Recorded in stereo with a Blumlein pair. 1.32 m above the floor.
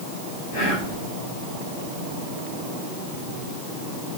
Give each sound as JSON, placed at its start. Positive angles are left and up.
{"t": 0.5, "sound": "whispering", "azimuth_deg": 40, "distance_m": 1.0}